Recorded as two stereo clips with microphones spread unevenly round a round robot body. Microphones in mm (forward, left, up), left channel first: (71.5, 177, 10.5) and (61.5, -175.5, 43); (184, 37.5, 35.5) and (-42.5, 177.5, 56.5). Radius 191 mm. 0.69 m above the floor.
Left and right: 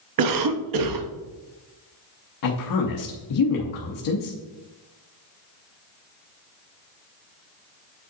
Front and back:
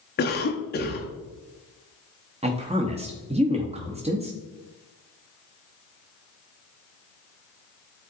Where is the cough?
75° right, 0.9 m.